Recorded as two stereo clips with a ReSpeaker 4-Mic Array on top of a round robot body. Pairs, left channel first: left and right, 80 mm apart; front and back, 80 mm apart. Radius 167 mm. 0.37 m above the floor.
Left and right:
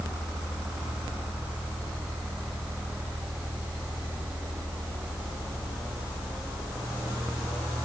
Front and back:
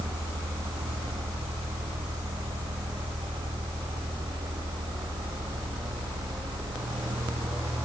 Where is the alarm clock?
I don't hear an alarm clock.